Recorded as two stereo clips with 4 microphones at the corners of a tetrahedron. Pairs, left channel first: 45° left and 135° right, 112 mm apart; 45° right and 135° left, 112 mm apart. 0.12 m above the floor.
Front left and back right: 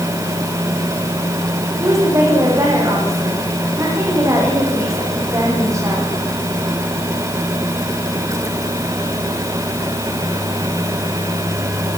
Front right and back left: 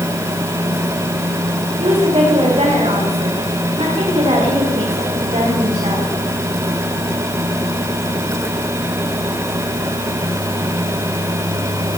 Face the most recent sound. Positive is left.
turn(degrees=165)